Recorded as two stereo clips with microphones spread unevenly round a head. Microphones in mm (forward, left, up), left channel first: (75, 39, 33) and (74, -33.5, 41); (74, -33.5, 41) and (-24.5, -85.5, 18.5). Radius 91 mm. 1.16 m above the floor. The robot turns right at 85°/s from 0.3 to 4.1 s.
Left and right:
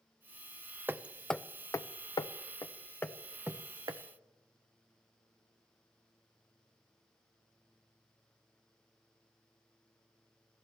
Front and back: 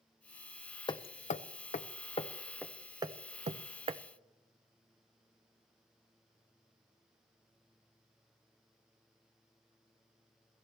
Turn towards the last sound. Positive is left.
turn(degrees=-115)